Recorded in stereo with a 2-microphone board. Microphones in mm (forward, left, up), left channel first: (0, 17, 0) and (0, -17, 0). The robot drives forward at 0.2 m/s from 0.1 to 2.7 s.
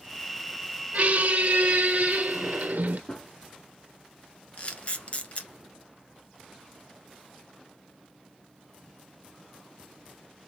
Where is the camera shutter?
40° left (ahead or behind), 1.1 m.